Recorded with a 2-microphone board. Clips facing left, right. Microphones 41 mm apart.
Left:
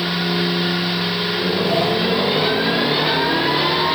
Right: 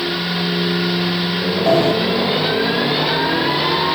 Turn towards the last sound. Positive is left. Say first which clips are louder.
# right 7 dB
turn(degrees=-60)  # may be behind; listen again after turning